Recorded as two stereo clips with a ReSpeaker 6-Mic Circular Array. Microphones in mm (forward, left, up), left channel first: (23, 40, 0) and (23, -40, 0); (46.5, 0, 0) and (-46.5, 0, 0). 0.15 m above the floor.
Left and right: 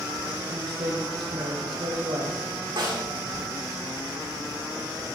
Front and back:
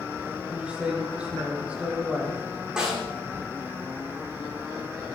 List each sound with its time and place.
0.5 s a woman speaking: 105° right, 6.5 m
2.8 s a snare drum: 100° right, 8.5 m